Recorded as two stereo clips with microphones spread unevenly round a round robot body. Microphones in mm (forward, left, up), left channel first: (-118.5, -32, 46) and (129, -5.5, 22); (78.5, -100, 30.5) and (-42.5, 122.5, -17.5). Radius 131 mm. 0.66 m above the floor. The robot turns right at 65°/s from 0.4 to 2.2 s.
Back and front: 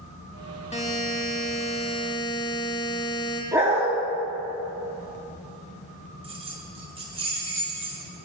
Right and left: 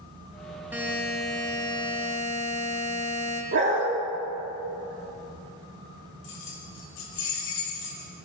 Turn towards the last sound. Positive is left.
turn(degrees=-60)